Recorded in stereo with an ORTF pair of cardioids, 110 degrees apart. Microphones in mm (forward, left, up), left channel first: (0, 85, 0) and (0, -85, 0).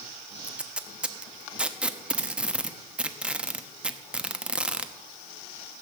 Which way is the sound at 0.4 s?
5° right.